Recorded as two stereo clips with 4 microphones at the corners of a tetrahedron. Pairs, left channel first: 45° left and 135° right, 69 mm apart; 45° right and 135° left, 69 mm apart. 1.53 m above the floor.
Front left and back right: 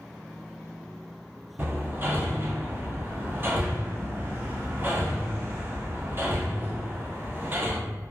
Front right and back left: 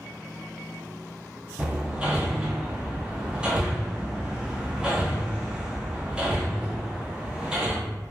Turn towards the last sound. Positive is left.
turn(degrees=-155)